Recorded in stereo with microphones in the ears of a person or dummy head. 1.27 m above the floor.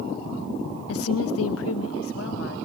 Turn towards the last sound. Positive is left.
turn(degrees=70)  # may be behind; listen again after turning